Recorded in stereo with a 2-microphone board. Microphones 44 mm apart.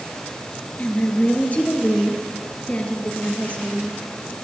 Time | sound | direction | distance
0.8 | a woman speaking | 35° left (ahead or behind) | 2.5 m